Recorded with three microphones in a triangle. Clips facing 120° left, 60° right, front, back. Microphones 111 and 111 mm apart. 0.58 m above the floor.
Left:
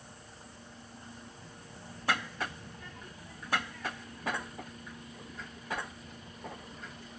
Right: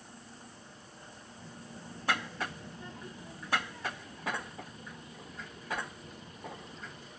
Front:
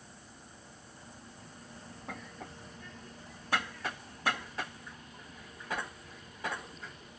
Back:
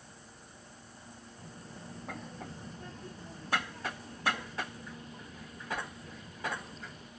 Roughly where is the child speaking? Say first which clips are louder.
Right 2 dB, back 2 dB; behind right.